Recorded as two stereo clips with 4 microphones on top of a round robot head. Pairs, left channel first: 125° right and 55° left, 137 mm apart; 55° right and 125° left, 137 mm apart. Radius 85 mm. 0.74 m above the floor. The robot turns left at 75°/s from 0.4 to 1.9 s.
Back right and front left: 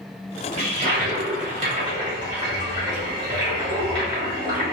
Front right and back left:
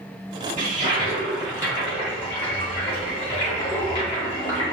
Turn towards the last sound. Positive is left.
turn(degrees=0)